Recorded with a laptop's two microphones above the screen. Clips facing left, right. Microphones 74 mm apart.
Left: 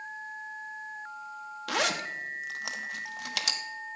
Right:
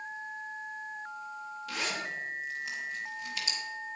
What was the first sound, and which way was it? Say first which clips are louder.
A zipper: left 7 dB; 75° left (ahead or behind).